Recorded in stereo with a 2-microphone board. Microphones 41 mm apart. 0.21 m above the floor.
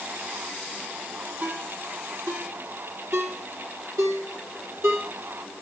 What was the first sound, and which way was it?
A ringtone, 75° right (ahead or behind).